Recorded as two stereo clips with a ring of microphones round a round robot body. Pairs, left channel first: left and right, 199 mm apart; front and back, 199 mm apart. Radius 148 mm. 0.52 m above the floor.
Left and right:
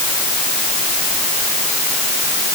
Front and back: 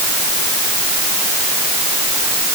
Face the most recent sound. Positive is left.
No sound to turn to.